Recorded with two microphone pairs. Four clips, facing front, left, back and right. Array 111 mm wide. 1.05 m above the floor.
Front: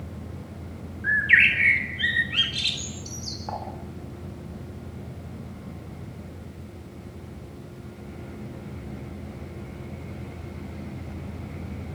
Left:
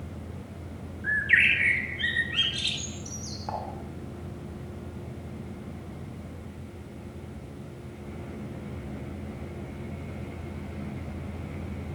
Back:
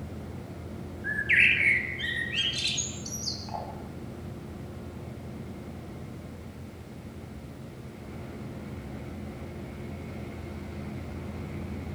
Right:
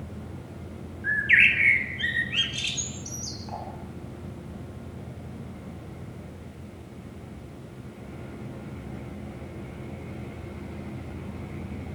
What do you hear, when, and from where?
1.0 s a bird: 20° left, 4.5 m
3.5 s dishes clattering: 45° left, 7 m